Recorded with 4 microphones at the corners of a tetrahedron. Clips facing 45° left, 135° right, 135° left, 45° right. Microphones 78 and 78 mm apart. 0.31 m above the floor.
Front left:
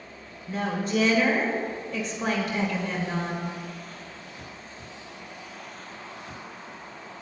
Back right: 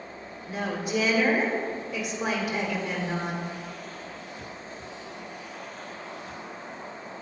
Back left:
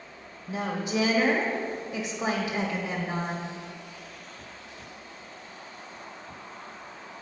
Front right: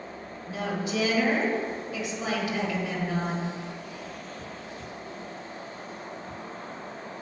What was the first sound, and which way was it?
A woman speaking, 150° left.